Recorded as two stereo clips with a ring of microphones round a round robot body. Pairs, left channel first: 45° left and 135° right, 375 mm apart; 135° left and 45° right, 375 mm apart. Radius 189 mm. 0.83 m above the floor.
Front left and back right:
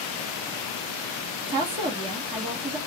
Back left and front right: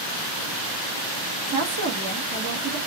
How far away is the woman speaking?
About 0.9 m.